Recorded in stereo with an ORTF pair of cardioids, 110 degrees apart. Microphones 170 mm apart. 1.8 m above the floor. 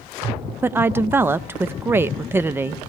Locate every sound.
0.6 s a woman speaking: 15° right, 0.5 m